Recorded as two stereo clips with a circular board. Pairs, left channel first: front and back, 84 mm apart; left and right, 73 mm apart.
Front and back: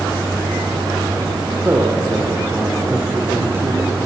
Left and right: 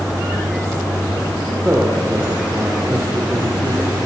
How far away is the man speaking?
About 1.1 m.